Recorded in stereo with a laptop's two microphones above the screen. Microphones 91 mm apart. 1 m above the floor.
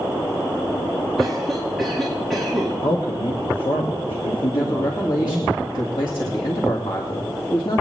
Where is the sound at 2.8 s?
75° left (ahead or behind), 1.6 m.